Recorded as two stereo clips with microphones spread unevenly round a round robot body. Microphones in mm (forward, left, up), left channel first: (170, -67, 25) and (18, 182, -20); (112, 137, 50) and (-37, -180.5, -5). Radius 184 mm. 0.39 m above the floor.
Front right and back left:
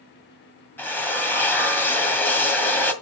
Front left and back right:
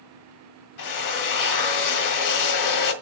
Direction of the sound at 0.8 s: 30° left.